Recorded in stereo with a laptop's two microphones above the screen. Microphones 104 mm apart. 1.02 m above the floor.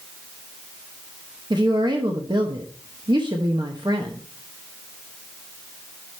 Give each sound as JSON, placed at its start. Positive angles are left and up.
{"t": 1.5, "sound": "a woman speaking", "side_deg": -45, "distance_m": 0.9}